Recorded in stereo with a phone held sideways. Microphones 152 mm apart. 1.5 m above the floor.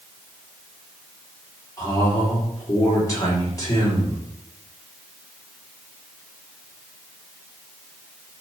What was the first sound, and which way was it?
A man speaking, 25° left (ahead or behind).